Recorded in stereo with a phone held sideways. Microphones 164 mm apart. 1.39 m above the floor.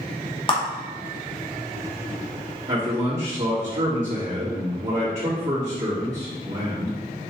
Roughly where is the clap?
Left.